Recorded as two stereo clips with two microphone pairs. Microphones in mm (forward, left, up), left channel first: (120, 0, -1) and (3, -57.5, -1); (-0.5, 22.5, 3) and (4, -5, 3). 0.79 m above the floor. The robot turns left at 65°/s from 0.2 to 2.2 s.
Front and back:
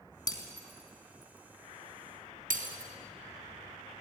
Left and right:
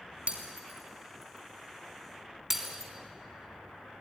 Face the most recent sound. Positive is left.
turn(degrees=-160)